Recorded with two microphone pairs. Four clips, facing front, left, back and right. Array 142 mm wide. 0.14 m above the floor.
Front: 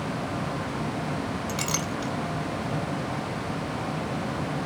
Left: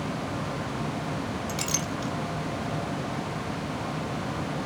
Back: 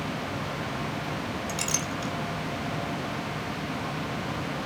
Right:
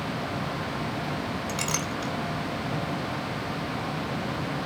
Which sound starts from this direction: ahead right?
A clink, at 1.5 s.